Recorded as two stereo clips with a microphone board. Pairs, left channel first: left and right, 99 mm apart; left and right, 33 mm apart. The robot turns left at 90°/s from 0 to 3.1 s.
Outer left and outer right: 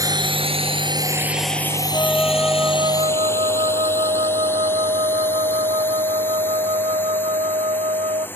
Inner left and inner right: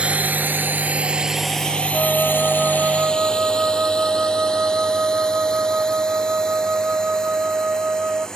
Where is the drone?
35° right (ahead or behind); by 8.4 s 20° left (ahead or behind).